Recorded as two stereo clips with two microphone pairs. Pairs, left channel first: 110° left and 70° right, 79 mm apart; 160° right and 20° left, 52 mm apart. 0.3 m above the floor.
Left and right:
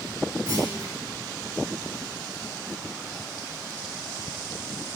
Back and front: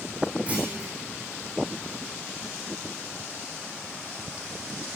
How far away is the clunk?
About 5.5 m.